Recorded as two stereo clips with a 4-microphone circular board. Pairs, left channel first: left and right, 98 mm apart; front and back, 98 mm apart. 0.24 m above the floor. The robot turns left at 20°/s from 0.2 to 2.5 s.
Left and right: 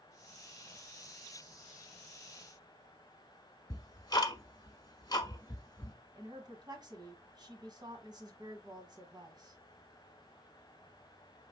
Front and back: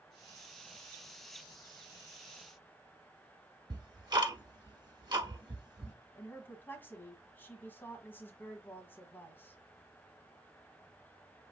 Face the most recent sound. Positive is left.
turn(degrees=-65)